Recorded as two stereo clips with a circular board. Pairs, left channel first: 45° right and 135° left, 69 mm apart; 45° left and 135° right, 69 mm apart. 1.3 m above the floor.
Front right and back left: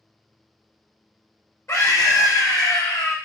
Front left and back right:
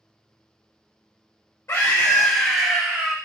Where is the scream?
5° left, 0.7 m; by 3.1 s 85° right, 0.7 m.